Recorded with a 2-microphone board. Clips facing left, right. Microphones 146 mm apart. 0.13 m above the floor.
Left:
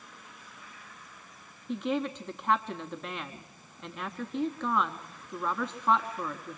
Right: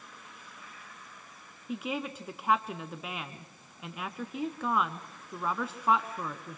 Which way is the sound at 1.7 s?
5° right (ahead or behind).